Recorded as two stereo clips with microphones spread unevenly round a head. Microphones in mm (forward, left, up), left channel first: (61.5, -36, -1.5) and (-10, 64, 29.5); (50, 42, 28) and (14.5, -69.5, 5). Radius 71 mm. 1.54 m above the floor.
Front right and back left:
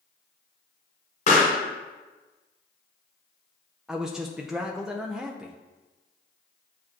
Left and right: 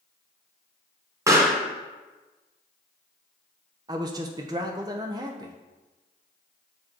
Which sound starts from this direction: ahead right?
A pop, at 1.3 s.